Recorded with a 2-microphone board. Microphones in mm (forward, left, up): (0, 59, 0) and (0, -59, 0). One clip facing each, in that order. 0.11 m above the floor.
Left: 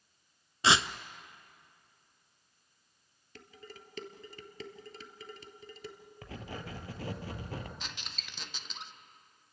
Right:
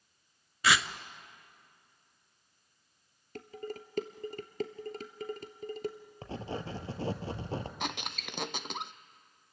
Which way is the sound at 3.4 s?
50° right (ahead or behind).